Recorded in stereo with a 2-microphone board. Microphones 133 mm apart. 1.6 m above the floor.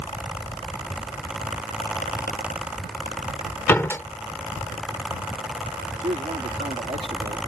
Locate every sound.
3.7 s a door slam: 20° left (ahead or behind)
6.0 s a man speaking: 70° right (ahead or behind)